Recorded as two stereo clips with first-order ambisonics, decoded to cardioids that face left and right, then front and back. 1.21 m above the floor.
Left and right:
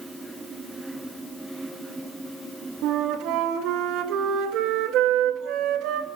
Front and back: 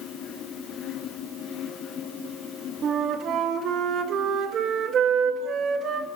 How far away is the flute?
About 1.8 m.